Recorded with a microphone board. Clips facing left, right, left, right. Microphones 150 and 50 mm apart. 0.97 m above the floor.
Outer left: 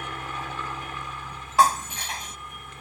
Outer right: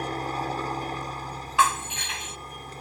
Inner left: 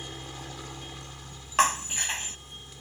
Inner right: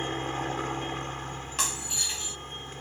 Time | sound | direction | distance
0.0 | a helicopter | 35° right (ahead or behind) | ?
1.6 | breaking glass | 40° left (ahead or behind) | ?